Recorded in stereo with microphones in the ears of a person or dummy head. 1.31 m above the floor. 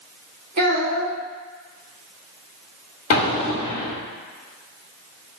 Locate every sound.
0.6 s a child speaking: 40° right (ahead or behind), 1.1 m
3.1 s an explosion: 45° left (ahead or behind), 1.3 m